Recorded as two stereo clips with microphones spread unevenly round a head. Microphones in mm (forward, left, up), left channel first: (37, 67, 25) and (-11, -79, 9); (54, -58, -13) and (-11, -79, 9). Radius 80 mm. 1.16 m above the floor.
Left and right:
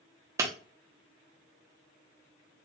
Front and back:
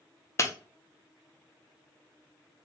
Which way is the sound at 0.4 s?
35° right.